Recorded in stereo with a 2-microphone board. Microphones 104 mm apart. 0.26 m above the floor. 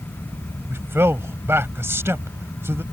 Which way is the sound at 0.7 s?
25° right (ahead or behind).